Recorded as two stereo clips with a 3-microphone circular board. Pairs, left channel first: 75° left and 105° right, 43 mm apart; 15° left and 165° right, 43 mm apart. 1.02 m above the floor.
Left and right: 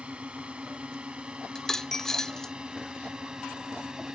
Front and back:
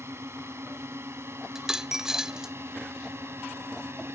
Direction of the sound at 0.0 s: 165° right.